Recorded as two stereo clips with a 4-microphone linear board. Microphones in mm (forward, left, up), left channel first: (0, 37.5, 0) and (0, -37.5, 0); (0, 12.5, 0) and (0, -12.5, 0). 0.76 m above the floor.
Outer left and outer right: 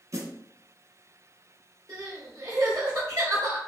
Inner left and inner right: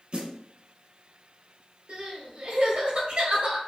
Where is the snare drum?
50° right (ahead or behind), 1.2 m.